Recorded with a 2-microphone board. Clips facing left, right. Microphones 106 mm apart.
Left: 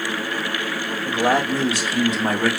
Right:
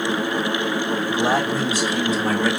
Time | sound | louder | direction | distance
1.1 | a man speaking | left 3 dB | 55° left (ahead or behind) | 1.6 m